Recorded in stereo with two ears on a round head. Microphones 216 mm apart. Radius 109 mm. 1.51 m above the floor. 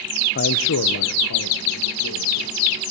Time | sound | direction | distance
0.3 | a man speaking | 35° left (ahead or behind) | 0.7 m